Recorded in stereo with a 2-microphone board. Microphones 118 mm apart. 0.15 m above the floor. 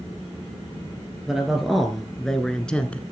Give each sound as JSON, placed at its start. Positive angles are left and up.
{"t": 1.3, "sound": "a man speaking", "side_deg": -5, "distance_m": 2.5}